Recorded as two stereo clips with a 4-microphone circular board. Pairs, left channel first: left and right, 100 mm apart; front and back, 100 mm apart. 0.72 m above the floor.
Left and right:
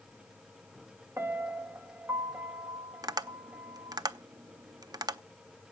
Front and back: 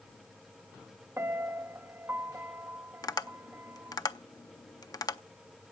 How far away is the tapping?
About 0.5 m.